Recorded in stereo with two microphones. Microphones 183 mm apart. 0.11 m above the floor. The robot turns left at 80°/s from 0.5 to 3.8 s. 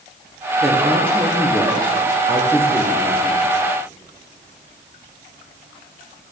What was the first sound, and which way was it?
A woman speaking, centre (ahead or behind).